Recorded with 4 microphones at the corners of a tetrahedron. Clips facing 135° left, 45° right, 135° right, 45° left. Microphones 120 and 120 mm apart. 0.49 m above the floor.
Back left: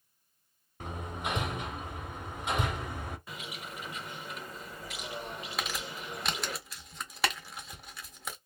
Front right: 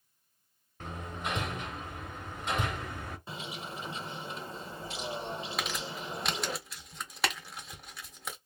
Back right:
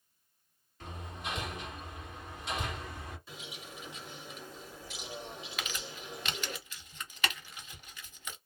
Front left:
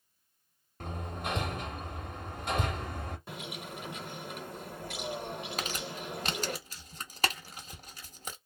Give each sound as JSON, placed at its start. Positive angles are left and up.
{"t": 0.8, "sound": "hammering", "azimuth_deg": 60, "distance_m": 0.8}
{"t": 3.3, "sound": "a bird", "azimuth_deg": 15, "distance_m": 0.5}
{"t": 5.6, "sound": "crumpling", "azimuth_deg": 45, "distance_m": 0.6}